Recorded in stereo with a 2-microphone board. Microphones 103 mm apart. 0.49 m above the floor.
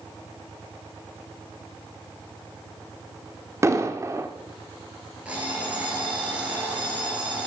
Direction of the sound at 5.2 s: 15° right (ahead or behind).